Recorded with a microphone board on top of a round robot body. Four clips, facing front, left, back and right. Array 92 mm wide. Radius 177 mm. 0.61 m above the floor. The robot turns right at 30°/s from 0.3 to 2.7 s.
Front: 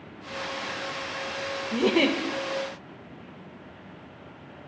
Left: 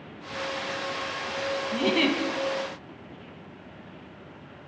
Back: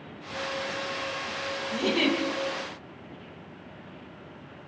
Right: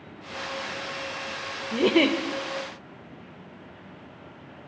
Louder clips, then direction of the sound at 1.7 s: Right 4 dB, front 3 dB; 65° right.